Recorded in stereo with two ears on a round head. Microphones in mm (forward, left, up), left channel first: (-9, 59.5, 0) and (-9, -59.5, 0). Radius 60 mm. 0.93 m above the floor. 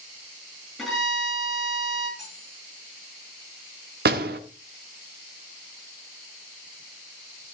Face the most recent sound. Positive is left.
turn(degrees=-85)